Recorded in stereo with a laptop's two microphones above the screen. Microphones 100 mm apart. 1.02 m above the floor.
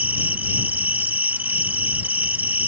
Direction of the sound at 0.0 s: 20° right (ahead or behind).